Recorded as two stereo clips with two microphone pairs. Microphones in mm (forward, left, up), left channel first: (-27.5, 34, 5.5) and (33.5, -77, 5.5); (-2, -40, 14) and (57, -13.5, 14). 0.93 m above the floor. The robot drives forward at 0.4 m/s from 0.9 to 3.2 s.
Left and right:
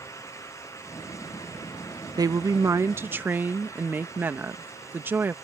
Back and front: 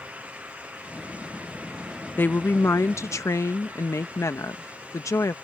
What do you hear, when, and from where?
2.2 s a woman speaking: 105° right; by 5.3 s 130° right